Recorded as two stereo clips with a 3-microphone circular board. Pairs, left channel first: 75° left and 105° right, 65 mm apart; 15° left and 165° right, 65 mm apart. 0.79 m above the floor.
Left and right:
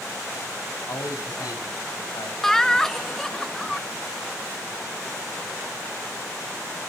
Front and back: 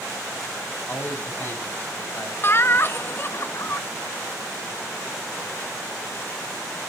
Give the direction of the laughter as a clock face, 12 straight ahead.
12 o'clock.